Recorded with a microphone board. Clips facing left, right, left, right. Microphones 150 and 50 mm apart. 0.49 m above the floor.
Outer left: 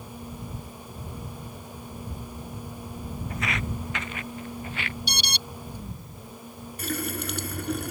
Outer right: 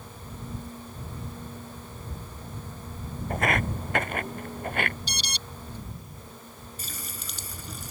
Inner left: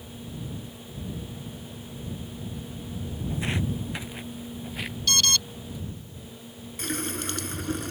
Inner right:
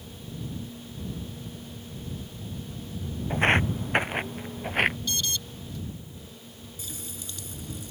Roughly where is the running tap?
Left.